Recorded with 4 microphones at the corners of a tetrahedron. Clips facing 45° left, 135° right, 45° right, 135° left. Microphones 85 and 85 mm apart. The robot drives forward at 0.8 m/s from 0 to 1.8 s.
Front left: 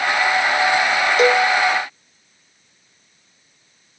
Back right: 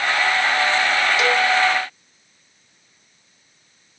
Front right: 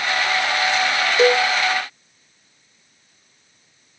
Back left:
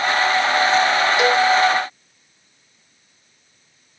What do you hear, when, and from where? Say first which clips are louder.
1.2 s a cowbell: front left 7 dB, front right 3 dB; 5° left, 0.7 m; by 1.5 s 10° left, 0.5 m